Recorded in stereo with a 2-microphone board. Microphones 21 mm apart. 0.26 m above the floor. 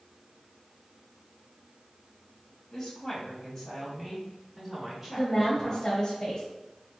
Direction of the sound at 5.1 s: 30° left (ahead or behind).